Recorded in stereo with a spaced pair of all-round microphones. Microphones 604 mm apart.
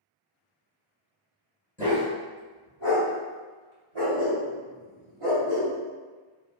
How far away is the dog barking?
About 1.3 m.